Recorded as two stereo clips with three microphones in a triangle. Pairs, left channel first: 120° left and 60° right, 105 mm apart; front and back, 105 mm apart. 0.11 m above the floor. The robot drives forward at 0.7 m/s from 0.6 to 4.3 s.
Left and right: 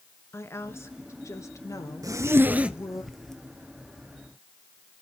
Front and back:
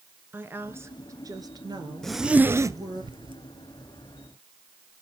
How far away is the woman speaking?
About 1.6 m.